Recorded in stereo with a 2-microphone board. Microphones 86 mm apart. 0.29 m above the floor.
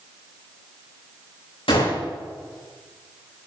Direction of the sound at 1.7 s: 80° left.